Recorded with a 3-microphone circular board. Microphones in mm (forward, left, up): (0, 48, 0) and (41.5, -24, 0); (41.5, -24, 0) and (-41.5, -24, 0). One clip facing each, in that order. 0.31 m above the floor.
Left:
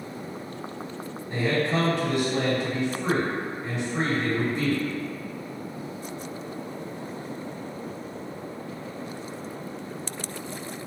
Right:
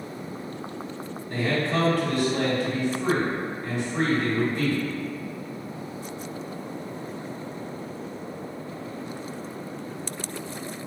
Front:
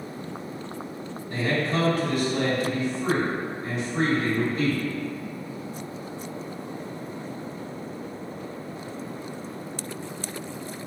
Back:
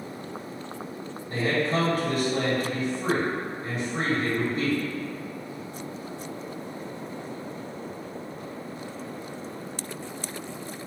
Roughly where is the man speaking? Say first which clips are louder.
Left 1 dB, back 1 dB; behind.